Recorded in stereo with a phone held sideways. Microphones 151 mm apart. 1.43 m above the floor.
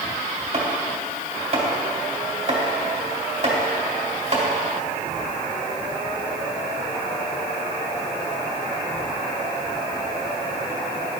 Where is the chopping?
50° right (ahead or behind), 3.5 m.